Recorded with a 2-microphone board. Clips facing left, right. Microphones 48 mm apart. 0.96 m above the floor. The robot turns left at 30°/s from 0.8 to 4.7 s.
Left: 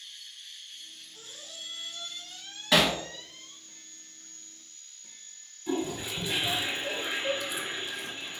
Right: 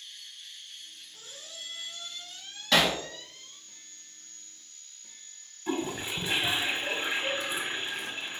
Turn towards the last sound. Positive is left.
turn(degrees=-35)  # may be behind; listen again after turning